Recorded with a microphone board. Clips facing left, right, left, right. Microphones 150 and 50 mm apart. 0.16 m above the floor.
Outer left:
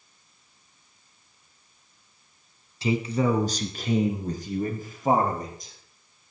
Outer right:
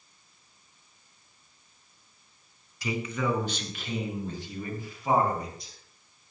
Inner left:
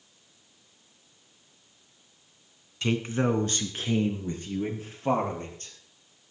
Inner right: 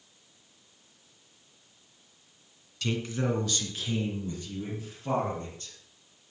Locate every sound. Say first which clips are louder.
2.8 s a man speaking: outer left 6 dB, inner left 4 dB; 25° left (ahead or behind), 1.2 m; by 5.7 s 45° left (ahead or behind), 3.5 m